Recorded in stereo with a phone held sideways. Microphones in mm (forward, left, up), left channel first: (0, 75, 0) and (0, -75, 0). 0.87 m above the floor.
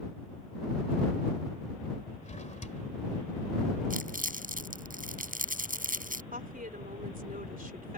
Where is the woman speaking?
70° right (ahead or behind).